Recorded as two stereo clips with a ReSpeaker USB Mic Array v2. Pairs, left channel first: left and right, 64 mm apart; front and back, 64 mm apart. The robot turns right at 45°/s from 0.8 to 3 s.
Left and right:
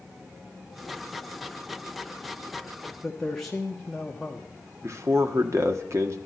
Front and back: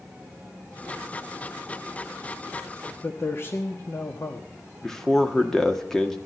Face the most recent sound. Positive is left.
turn(degrees=-80)